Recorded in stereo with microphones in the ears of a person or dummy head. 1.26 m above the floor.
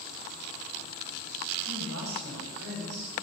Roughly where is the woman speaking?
Right.